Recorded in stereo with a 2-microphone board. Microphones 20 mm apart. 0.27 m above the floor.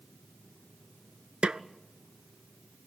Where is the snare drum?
80° right, 0.5 m.